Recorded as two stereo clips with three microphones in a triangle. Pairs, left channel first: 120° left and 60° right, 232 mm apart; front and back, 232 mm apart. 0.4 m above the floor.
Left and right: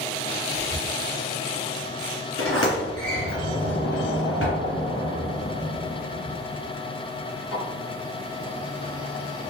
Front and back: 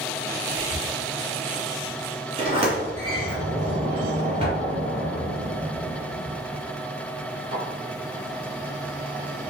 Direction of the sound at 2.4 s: 110° left.